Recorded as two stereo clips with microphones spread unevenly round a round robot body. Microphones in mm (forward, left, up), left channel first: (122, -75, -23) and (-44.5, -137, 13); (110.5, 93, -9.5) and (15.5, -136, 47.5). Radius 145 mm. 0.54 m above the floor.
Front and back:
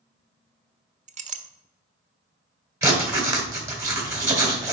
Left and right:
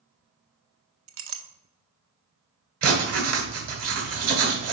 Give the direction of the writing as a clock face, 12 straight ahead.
3 o'clock.